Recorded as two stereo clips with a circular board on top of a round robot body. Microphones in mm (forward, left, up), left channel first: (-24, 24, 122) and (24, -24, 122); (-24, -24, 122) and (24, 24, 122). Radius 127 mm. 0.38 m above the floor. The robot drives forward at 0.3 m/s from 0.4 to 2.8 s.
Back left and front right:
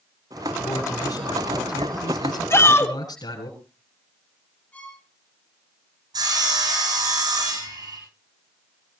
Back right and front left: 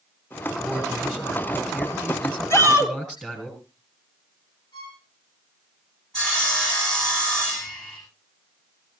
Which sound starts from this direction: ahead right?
Sawing, at 6.1 s.